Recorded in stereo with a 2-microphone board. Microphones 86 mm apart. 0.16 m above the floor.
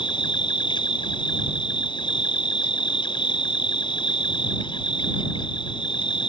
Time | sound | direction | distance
0.0 | an insect | 70° left (ahead or behind) | ?